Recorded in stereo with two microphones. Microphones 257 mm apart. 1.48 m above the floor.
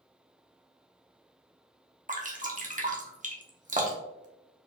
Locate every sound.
2.1 s dripping: 30° right (ahead or behind), 1.0 m